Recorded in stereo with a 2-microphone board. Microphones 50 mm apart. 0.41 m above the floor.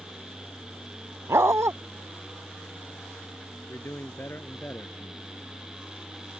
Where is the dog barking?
75° right (ahead or behind).